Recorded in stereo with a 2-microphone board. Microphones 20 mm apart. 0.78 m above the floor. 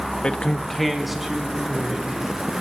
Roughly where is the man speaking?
Left.